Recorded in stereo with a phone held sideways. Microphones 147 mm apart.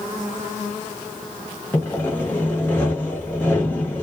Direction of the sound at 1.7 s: 10° left (ahead or behind).